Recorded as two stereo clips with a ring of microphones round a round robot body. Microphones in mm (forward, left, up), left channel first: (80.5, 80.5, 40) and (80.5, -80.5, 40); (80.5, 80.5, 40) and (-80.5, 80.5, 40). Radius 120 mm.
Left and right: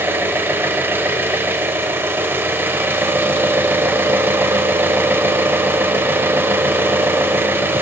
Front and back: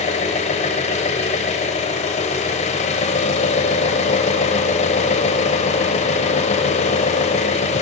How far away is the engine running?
About 0.9 m.